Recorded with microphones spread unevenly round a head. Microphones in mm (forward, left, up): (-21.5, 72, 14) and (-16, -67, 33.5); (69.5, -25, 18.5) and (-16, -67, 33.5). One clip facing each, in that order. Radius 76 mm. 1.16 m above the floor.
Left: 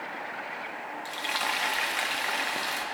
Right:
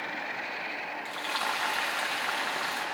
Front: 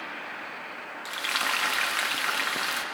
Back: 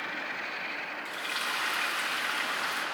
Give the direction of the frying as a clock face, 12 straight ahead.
11 o'clock.